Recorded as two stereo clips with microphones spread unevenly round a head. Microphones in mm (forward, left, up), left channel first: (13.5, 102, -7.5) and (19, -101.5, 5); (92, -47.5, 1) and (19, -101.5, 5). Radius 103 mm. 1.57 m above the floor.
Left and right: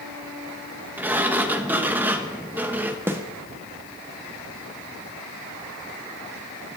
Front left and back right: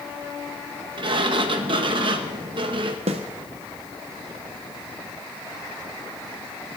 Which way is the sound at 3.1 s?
170° right.